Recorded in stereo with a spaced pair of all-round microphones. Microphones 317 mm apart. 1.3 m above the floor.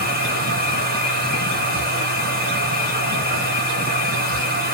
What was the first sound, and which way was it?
A machine running, 30° right (ahead or behind).